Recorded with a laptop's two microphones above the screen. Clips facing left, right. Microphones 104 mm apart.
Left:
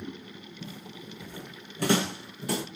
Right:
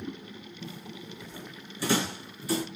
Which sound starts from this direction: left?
Footsteps, at 0.6 s.